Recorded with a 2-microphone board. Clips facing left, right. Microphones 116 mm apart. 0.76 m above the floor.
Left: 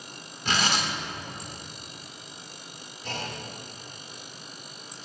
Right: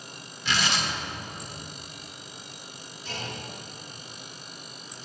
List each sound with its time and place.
0.5 s tearing paper: 45° left (ahead or behind), 2.5 m
3.0 s a clunk: 65° left (ahead or behind), 4 m